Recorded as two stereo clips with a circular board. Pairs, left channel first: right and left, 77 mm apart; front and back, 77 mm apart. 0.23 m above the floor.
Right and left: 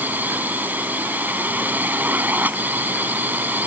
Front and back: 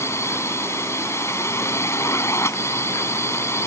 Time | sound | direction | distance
0.0 | a drone | 35° left | ?